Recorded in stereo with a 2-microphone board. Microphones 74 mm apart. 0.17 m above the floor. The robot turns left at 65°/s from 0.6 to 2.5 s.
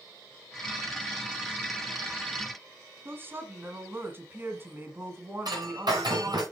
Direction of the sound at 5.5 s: 65° right (ahead or behind).